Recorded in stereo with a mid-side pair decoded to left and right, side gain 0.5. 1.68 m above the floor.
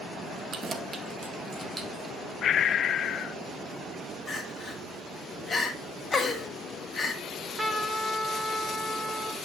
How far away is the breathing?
About 0.6 m.